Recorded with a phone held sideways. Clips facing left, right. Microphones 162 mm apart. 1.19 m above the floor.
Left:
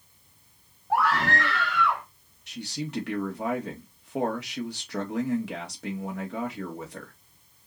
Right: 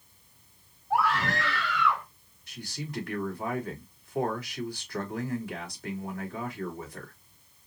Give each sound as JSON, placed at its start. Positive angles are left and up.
{"t": 0.9, "sound": "a scream", "side_deg": 75, "distance_m": 1.6}
{"t": 2.5, "sound": "a man speaking", "side_deg": 70, "distance_m": 1.8}